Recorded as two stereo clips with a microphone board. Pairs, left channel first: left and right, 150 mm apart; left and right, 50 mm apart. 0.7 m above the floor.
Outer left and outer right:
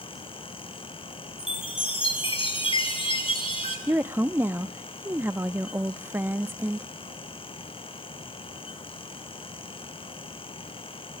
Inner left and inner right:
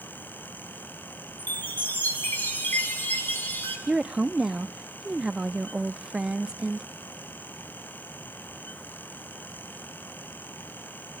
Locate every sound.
1.4 s a chime: 35° left (ahead or behind), 6.5 m
3.9 s a woman speaking: 15° right (ahead or behind), 0.7 m